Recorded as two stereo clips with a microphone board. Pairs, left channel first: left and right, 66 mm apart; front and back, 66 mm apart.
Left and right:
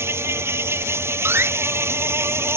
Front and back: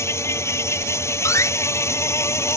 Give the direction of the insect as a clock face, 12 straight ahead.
1 o'clock.